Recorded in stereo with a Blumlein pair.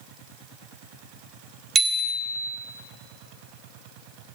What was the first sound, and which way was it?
A bicycle bell, 15° right.